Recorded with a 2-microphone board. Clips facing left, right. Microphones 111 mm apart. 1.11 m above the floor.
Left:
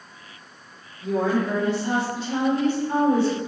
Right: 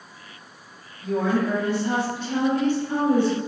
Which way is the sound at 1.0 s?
30° left (ahead or behind).